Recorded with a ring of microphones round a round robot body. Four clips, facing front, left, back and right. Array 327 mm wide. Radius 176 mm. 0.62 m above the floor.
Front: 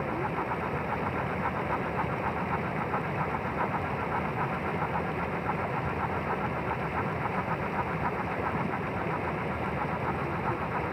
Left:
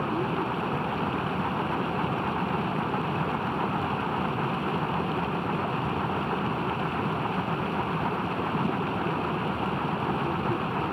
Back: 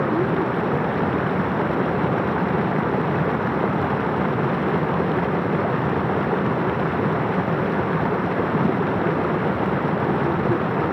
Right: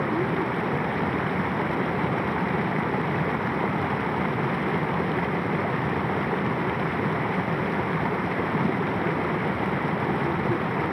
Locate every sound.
0.0 s running water: 170° right